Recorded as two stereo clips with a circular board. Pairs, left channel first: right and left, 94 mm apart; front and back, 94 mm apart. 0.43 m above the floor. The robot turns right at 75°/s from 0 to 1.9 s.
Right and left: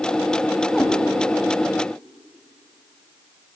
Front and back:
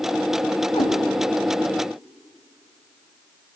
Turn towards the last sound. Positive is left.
turn(degrees=75)